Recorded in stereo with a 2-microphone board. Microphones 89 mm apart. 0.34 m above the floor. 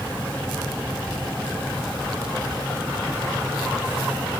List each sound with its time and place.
Only background noise.